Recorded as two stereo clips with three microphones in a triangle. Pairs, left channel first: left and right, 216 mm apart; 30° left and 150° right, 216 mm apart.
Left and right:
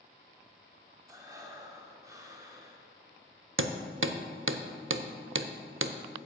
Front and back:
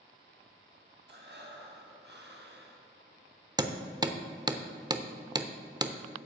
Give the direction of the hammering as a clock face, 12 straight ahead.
3 o'clock.